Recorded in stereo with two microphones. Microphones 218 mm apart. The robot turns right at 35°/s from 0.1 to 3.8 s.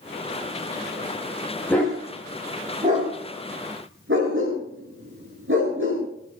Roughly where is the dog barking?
Centre.